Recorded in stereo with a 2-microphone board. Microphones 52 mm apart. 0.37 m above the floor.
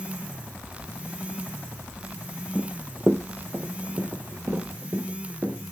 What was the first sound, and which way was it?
Running footsteps, 15° right (ahead or behind).